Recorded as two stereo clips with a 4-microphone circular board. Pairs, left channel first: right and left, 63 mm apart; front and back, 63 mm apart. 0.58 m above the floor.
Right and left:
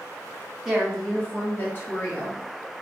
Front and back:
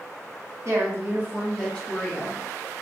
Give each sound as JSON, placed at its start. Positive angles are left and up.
{"t": 0.7, "sound": "a woman speaking", "azimuth_deg": 175, "distance_m": 1.1}